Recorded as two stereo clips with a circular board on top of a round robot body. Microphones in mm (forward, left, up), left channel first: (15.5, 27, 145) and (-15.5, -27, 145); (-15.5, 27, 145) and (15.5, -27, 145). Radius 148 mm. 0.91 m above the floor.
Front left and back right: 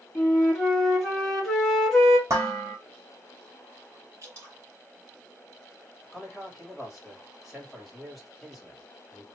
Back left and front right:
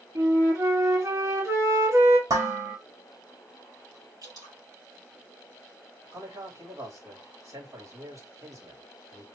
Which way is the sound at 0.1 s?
25° right.